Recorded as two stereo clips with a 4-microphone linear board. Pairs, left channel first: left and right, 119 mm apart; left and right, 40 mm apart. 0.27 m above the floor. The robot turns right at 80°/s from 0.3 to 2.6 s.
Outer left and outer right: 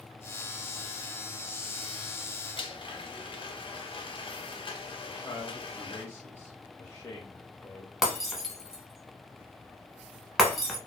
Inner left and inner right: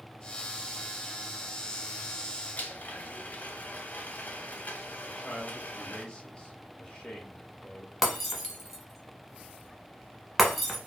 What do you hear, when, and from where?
2.6 s a blender: 40° left (ahead or behind), 0.5 m; by 6.0 s 45° left (ahead or behind), 0.5 m
5.0 s a man speaking: 20° left (ahead or behind), 1.1 m
8.0 s breaking glass: centre (ahead or behind), 0.7 m